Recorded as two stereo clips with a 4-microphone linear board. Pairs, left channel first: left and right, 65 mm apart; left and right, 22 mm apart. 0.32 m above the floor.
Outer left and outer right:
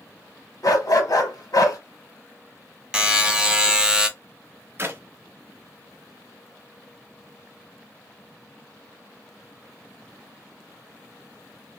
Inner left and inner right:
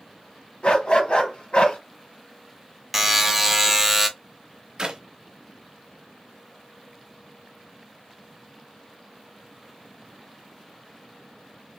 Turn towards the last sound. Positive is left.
turn(degrees=-35)  # may be behind; listen again after turning